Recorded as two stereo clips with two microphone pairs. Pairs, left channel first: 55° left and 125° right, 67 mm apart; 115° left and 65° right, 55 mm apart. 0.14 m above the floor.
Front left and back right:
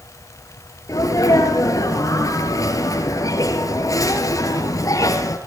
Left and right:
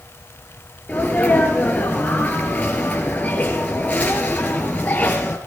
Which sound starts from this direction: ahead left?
A sneeze, at 0.9 s.